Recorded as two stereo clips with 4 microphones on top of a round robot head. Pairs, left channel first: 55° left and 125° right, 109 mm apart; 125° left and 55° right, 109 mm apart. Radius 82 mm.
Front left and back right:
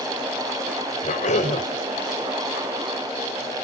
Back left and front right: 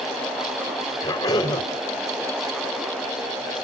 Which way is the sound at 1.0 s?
65° left.